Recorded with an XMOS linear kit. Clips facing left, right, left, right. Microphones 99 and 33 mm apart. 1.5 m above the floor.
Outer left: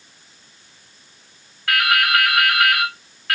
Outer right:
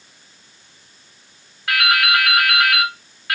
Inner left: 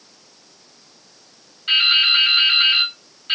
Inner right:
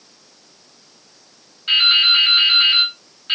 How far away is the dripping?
About 1.8 m.